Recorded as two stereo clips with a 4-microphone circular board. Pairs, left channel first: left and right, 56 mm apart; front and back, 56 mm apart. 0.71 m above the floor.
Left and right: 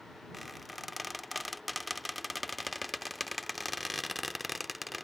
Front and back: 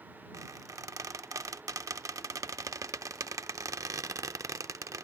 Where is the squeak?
Straight behind.